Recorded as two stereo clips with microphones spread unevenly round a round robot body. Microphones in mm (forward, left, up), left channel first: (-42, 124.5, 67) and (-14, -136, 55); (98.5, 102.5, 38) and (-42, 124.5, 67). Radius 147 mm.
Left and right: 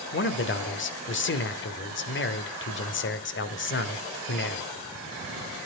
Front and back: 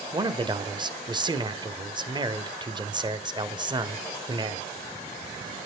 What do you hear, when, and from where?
0.1 s a man speaking: 110° left, 1.4 m